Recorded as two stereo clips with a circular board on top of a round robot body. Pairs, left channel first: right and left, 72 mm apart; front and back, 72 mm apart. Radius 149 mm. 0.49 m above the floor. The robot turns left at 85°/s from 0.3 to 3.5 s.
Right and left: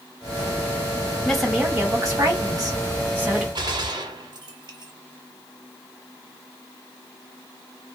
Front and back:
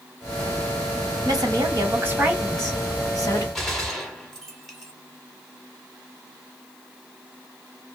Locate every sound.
1.2 s a woman speaking: 170° right, 2 m; by 3.5 s 5° left, 2 m
3.5 s a gunshot: 85° left, 1.1 m